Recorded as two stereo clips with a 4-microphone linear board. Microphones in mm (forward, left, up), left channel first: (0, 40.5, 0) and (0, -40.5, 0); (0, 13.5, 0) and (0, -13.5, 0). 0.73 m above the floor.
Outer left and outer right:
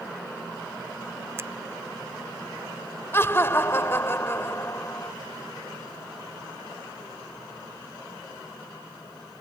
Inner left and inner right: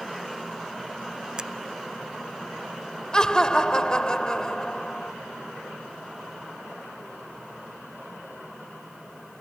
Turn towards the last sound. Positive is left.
turn(degrees=30)  # may be behind; listen again after turning